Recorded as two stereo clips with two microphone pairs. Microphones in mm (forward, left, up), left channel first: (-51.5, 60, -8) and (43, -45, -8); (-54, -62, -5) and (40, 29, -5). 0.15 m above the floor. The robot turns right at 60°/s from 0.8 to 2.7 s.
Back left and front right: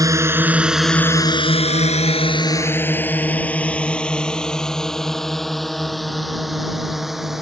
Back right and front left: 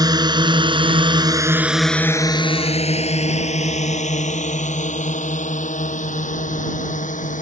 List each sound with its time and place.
0.0 s a drone: 5° left; by 7.4 s 135° right